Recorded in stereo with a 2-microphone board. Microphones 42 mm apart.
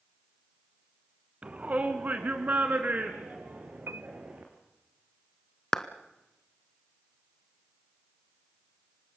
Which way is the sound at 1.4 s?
30° right (ahead or behind).